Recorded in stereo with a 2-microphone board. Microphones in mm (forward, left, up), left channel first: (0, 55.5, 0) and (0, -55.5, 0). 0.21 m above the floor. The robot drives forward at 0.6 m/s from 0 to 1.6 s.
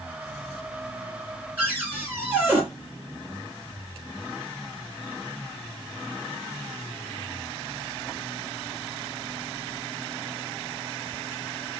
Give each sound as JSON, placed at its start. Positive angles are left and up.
{"t": 1.6, "sound": "a cupboard door", "side_deg": -20, "distance_m": 1.6}